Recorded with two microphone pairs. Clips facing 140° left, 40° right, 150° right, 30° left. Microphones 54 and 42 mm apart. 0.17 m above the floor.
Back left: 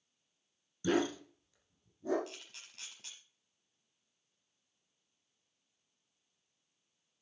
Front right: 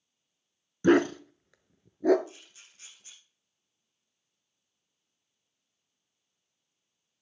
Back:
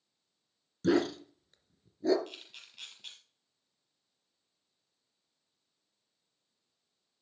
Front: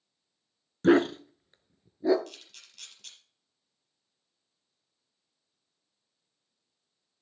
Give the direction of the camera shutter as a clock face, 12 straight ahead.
7 o'clock.